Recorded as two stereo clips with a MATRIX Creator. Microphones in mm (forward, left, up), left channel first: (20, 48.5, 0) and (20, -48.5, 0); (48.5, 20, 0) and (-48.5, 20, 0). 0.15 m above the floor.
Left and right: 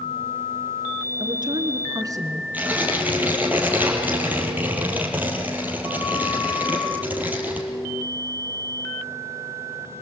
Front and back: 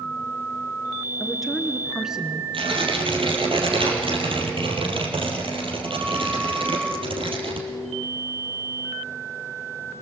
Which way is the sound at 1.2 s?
90° right.